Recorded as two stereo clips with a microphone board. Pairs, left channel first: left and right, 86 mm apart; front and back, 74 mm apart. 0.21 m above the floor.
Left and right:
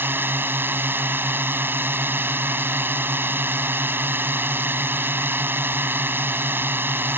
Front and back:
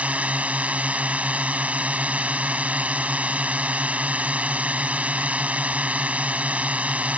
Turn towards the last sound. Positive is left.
turn(degrees=-130)